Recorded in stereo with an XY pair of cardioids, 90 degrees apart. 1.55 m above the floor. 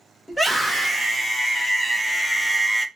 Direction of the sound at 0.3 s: 5° left.